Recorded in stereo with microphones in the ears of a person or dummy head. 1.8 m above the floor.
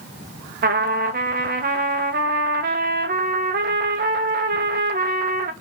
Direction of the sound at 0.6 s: 45° right (ahead or behind).